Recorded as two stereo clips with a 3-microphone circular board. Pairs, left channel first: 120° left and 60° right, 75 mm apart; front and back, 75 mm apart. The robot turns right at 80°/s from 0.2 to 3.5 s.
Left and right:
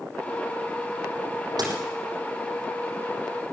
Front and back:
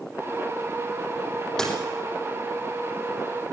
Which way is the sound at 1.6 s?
80° right.